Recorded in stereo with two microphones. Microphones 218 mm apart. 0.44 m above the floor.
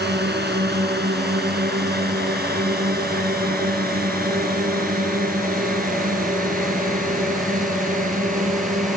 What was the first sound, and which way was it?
A drone, 50° right (ahead or behind).